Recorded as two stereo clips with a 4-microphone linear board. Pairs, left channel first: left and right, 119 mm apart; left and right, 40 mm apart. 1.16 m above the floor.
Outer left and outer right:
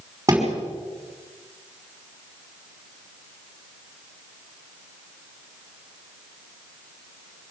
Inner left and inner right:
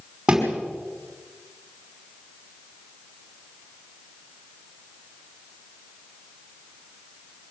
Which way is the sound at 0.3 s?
25° right (ahead or behind).